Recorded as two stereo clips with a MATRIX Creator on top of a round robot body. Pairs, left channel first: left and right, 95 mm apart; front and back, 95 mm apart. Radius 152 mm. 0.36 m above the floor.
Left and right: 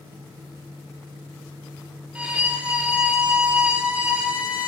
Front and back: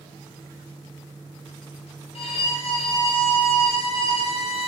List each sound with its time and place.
2.1 s a violin: 10° right, 1.4 m